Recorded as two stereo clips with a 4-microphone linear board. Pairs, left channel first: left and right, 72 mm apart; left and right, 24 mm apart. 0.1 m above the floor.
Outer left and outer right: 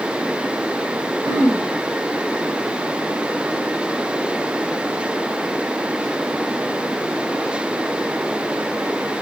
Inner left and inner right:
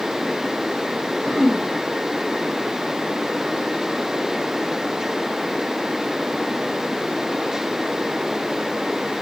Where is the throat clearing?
20° right (ahead or behind), 4.5 m.